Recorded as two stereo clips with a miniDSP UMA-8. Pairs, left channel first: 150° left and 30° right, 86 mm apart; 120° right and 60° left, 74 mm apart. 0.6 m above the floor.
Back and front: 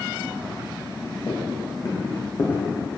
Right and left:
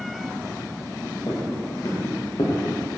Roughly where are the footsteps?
Behind.